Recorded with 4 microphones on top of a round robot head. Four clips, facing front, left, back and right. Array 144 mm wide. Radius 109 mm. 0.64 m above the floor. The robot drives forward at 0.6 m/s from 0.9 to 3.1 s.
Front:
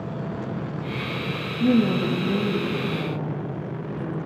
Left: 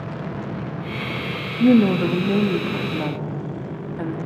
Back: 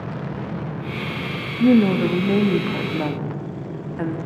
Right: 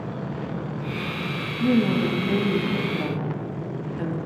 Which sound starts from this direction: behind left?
A woman speaking, at 1.6 s.